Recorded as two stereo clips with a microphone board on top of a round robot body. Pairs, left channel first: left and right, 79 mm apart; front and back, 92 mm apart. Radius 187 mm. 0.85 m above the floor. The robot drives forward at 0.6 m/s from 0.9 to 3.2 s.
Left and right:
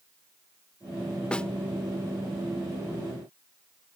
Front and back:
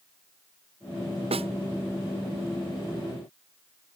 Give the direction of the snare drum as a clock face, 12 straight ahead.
6 o'clock.